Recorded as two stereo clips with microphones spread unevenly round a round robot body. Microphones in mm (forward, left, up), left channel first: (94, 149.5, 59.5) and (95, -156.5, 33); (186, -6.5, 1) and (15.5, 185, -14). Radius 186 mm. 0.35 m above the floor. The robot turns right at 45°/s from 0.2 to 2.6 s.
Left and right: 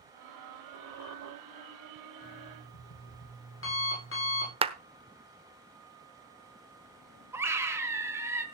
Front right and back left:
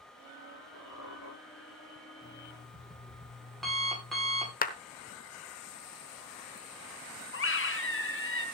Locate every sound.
0.7 s a squeak: 110° right, 5 m; by 1.3 s 85° right, 5 m
2.2 s an alarm clock: 25° left, 10 m; by 4.5 s 40° left, 10 m
4.6 s a clap: 55° right, 1.1 m
7.3 s a scream: 10° right, 3.5 m